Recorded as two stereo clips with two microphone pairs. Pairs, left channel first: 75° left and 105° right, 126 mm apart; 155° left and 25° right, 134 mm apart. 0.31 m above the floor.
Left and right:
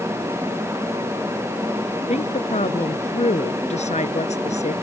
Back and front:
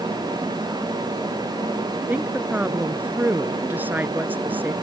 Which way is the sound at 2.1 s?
50° left.